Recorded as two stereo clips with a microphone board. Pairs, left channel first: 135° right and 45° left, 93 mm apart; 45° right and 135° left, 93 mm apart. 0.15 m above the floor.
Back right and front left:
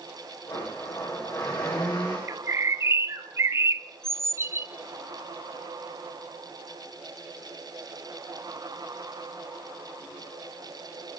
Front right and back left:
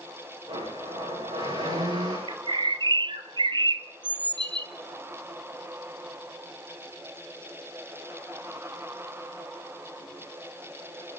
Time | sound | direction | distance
0.5 | a blender | 160° left | 10 m
2.3 | a bird | 105° left | 0.8 m